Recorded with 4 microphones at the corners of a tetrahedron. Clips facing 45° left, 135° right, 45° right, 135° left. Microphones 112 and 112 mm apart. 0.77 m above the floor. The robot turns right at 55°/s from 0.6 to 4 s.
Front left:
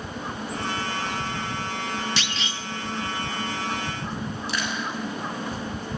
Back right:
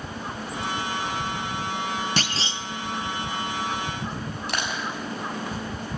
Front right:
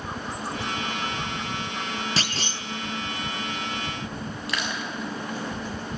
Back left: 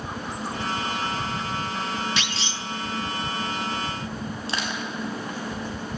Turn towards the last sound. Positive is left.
turn(degrees=-165)